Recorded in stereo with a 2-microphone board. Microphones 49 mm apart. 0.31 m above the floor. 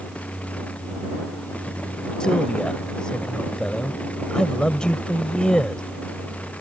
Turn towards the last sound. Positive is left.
turn(degrees=20)  # may be behind; listen again after turning